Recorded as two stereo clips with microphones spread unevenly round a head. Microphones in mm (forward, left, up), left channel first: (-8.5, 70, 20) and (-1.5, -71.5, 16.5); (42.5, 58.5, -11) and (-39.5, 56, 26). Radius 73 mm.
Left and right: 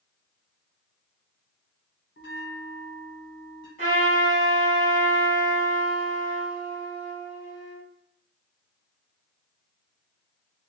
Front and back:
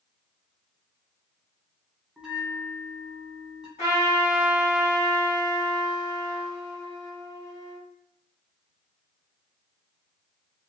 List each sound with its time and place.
2.2 s a bell: 115° left, 0.9 m
3.8 s a trumpet: 45° right, 1.8 m